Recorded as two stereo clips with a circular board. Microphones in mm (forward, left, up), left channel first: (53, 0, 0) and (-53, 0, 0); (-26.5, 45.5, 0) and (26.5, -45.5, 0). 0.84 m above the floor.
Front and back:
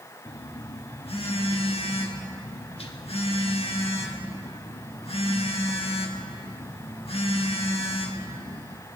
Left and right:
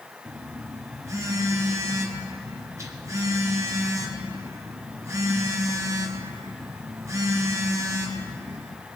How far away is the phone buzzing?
About 1.3 m.